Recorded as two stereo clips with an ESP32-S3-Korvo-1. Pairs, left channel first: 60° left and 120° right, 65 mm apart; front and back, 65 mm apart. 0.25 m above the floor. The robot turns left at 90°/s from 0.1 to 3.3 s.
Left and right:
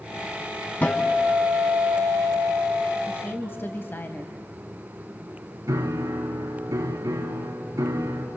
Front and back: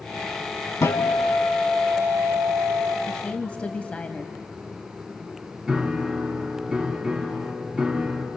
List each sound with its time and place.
0.8 s a guitar: 5° left, 2.5 m; by 3.0 s 170° left, 2.5 m
3.1 s a woman speaking: 75° left, 1.1 m; by 4.3 s 55° left, 1.1 m
5.7 s a piano: 105° right, 2.5 m